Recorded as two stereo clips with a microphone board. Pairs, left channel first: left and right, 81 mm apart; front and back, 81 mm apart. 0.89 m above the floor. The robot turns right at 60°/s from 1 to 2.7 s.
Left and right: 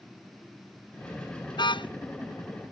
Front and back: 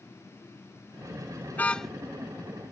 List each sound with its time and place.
1.5 s a car horn: 65° left; by 1.9 s 90° left